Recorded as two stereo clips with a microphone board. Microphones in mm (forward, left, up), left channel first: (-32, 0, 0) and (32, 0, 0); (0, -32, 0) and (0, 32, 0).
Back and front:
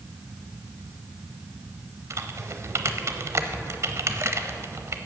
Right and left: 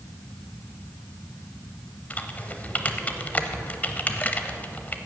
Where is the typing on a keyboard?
30° right, 0.7 m.